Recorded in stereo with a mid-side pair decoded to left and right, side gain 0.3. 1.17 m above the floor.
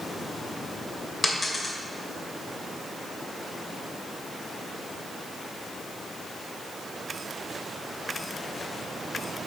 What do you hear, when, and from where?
1.2 s a dropped coin: 35° left, 2 m